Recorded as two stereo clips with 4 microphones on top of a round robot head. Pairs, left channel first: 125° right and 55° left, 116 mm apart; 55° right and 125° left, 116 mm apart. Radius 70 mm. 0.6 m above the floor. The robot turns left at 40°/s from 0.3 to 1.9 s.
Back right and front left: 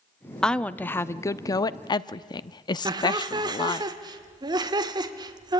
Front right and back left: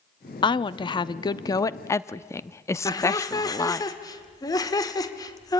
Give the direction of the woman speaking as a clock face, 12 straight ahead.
2 o'clock.